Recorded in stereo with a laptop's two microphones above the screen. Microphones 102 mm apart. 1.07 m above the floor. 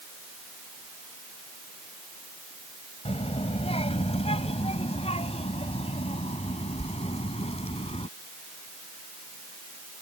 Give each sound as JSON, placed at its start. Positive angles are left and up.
{"t": 3.0, "sound": "a child speaking", "side_deg": 80}